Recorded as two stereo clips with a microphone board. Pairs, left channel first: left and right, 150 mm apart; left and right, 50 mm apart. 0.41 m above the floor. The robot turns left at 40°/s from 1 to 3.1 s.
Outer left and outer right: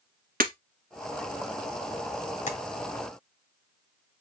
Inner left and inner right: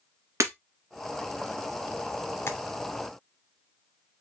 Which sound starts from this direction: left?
Tapping, at 2.5 s.